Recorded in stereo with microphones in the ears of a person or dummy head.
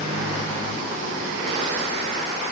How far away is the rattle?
No rattle in this recording.